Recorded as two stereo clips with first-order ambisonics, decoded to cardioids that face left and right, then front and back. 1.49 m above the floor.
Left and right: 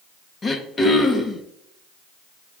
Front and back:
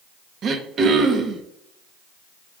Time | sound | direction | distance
0.4 | throat clearing | 150° left | 0.7 m